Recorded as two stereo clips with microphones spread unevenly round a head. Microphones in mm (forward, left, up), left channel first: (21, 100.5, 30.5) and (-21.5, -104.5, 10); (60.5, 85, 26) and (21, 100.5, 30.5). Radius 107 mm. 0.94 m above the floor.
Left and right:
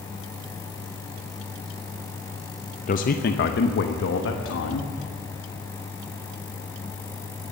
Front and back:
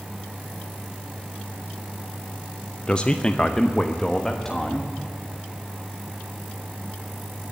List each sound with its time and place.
2.9 s a man speaking: 30° left, 0.7 m; by 4.9 s 55° left, 1.5 m